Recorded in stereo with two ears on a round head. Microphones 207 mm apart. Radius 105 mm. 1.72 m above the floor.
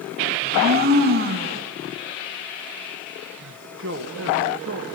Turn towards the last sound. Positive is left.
turn(degrees=-50)  # may be behind; listen again after turning